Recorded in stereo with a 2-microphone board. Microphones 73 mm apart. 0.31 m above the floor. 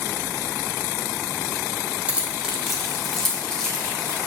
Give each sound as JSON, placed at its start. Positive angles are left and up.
{"t": 2.1, "sound": "keys jangling", "side_deg": -20, "distance_m": 1.1}